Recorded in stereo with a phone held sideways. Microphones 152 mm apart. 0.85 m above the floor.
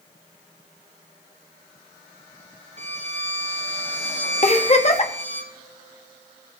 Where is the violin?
45° right (ahead or behind), 1.4 m.